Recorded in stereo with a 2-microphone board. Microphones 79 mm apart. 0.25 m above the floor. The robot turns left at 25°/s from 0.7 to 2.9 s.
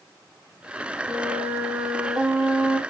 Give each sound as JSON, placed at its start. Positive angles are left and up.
{"t": 1.1, "sound": "a flute", "azimuth_deg": -145, "distance_m": 3.5}